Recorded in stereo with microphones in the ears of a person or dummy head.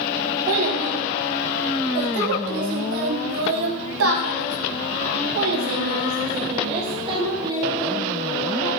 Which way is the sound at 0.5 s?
55° right (ahead or behind).